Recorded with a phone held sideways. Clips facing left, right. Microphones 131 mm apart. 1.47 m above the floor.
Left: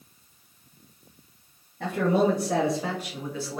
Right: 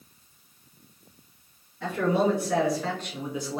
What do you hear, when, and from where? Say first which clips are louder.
1.8 s a man speaking: left 1 dB; 60° left (ahead or behind), 1.1 m; by 3.6 s 25° right (ahead or behind), 0.8 m